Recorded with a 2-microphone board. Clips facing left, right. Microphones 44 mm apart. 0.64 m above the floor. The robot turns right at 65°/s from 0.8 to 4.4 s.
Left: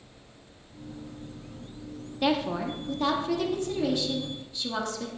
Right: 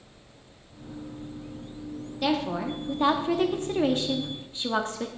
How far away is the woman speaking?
About 1.1 m.